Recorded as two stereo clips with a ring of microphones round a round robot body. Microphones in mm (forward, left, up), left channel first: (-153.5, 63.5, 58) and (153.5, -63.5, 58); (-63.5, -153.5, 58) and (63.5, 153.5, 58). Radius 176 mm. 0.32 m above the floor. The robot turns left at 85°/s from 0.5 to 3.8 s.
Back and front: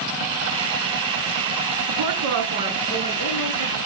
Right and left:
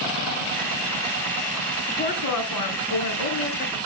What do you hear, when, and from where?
1.9 s a woman speaking: 30° right, 4 m; by 3.8 s 170° left, 4 m